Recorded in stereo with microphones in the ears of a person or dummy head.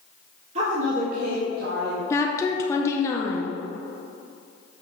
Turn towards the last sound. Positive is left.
turn(degrees=15)  # may be behind; listen again after turning